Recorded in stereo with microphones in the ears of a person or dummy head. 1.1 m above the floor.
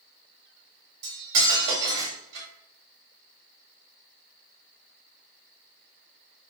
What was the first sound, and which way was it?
Cutlery clinking, 80° right.